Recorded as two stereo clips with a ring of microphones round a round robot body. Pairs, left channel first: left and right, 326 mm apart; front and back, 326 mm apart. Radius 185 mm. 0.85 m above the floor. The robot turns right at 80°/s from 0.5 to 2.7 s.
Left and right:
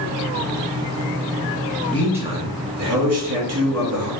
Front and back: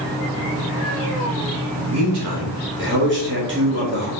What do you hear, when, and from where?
1.9 s a man speaking: 170° left, 2 m; by 4.1 s 130° right, 2 m